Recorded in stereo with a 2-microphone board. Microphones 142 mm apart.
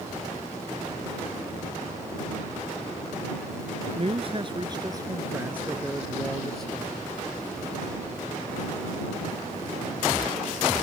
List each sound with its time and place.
4.0 s a man speaking: 45° right (ahead or behind); by 7.0 s 10° left (ahead or behind)